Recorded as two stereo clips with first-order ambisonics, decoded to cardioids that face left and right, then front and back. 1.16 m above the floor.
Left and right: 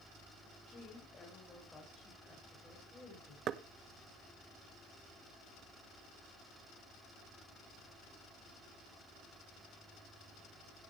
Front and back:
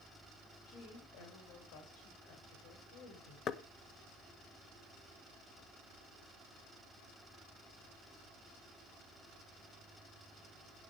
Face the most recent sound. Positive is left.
turn(degrees=-45)